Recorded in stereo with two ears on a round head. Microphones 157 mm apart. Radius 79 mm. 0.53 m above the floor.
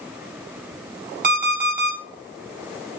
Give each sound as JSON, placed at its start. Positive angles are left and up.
{"t": 1.2, "sound": "an alarm clock", "side_deg": -50, "distance_m": 1.5}